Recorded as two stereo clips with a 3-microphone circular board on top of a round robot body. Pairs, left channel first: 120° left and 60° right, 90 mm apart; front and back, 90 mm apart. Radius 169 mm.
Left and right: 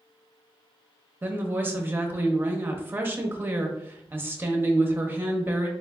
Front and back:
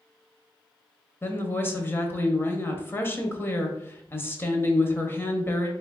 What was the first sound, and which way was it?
A woman speaking, 25° right.